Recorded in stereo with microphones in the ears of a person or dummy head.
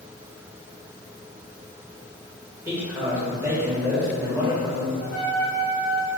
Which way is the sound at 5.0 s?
30° left (ahead or behind).